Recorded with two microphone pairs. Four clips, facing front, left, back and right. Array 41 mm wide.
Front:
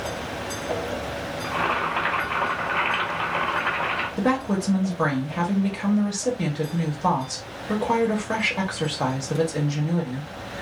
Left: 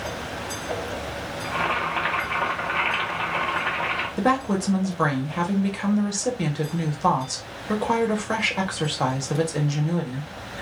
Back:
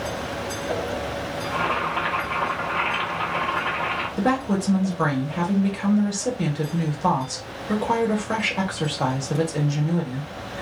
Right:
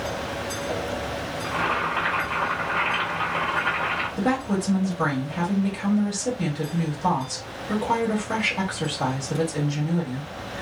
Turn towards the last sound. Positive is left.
turn(degrees=80)